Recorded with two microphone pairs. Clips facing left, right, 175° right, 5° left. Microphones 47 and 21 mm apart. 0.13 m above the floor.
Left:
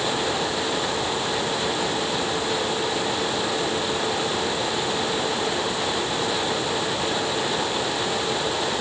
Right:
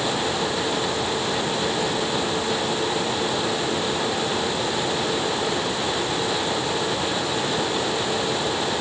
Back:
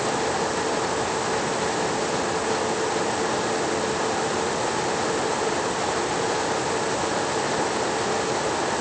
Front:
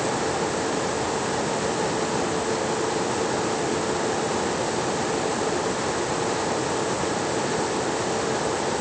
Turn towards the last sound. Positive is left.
No sound to turn to.